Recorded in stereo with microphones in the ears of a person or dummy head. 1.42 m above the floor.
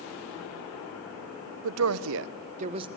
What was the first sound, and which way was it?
A woman speaking, 80° right.